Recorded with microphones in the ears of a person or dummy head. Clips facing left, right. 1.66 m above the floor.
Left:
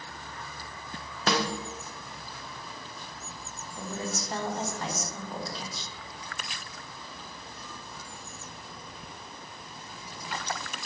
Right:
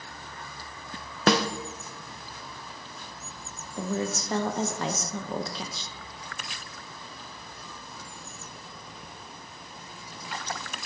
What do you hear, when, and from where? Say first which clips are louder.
1.3 s a snare drum: right 5 dB; 55° right (ahead or behind), 0.5 m
3.8 s a woman speaking: right 6 dB; 65° right (ahead or behind), 0.7 m